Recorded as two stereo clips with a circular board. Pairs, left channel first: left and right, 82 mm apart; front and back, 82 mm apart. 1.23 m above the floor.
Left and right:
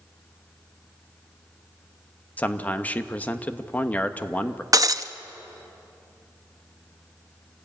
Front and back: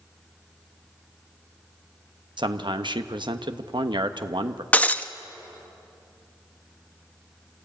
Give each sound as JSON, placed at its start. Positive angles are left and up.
{"t": 2.4, "sound": "a man speaking", "azimuth_deg": 160, "distance_m": 1.1}
{"t": 4.7, "sound": "breaking glass", "azimuth_deg": -65, "distance_m": 0.7}